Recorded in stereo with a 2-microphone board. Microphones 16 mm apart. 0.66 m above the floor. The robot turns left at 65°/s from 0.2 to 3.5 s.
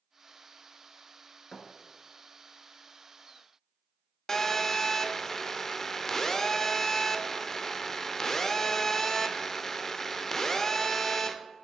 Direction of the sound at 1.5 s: 55° left (ahead or behind).